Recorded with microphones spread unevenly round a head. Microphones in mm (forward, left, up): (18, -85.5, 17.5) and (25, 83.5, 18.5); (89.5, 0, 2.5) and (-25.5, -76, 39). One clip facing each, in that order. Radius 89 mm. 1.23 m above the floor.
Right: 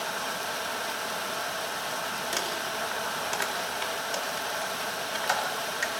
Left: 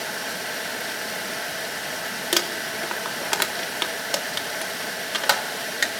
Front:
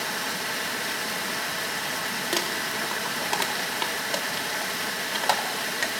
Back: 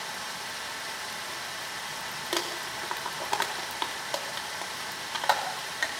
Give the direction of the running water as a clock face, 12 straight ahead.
11 o'clock.